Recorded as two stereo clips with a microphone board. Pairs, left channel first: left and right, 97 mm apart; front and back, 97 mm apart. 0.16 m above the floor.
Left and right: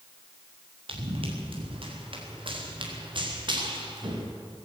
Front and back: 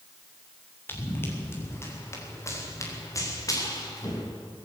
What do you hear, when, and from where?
0.9 s running footsteps: 70° right, 6 m; by 4.2 s 50° right, 5.5 m